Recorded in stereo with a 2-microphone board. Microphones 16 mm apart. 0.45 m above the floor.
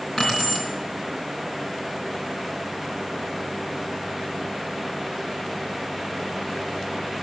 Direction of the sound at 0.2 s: 60° left (ahead or behind).